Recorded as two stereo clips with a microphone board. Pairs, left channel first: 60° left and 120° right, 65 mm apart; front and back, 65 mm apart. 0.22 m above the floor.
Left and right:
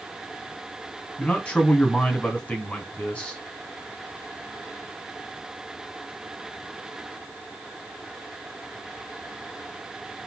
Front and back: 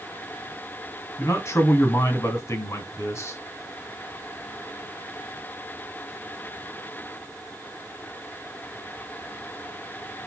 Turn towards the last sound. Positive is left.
turn(degrees=-5)